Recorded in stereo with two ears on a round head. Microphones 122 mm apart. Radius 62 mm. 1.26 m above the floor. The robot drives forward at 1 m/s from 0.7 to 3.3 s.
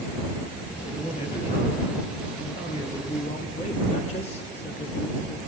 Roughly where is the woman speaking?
Left.